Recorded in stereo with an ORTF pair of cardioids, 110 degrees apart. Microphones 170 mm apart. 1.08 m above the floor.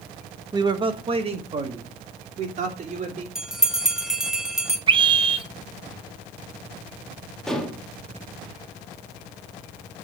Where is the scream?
30° right, 1.2 m.